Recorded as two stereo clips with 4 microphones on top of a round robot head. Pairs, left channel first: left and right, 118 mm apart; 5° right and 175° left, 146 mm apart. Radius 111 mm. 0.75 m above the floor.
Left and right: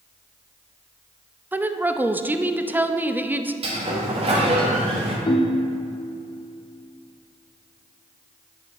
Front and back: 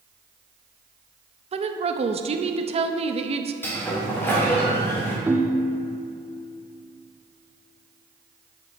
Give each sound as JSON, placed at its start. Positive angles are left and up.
{"t": 1.5, "sound": "a woman speaking", "azimuth_deg": -160, "distance_m": 0.6}
{"t": 3.6, "sound": "a sliding door", "azimuth_deg": -80, "distance_m": 1.6}
{"t": 5.3, "sound": "a ringtone", "azimuth_deg": 100, "distance_m": 0.6}